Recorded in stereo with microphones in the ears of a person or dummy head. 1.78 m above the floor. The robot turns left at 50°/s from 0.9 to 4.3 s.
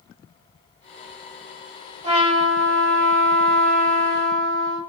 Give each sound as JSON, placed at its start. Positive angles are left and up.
{"t": 2.0, "sound": "a trumpet", "azimuth_deg": -30, "distance_m": 1.2}